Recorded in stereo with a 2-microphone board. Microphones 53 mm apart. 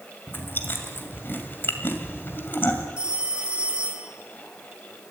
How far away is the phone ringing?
About 3 m.